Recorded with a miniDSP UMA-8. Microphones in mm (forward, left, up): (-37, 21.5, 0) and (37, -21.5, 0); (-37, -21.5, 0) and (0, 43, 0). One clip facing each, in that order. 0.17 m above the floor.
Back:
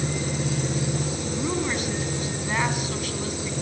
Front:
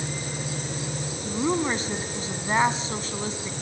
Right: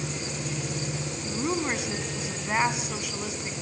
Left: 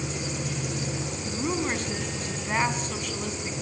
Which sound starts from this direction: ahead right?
A woman speaking, at 1.2 s.